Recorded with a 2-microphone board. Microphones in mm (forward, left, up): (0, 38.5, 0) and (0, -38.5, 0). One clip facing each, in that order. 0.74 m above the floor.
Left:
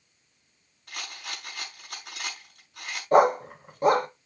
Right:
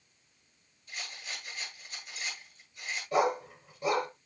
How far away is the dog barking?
About 1.1 m.